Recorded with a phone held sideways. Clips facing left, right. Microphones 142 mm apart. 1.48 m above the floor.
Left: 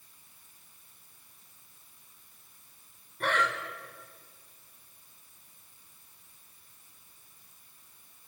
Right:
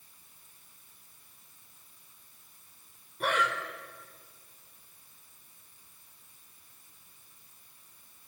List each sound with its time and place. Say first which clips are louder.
3.2 s breathing: even; 10° right (ahead or behind), 3.5 m